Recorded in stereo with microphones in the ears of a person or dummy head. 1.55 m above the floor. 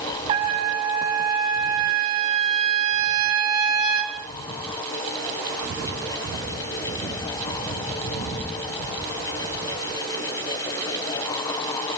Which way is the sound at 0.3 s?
25° right (ahead or behind).